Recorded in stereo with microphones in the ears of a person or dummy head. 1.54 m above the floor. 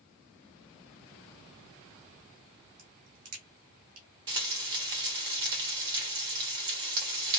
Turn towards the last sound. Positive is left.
turn(degrees=-25)  # may be behind; listen again after turning